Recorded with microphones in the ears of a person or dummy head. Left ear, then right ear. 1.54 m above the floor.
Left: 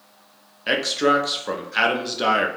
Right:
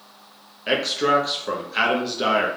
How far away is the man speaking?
About 0.5 m.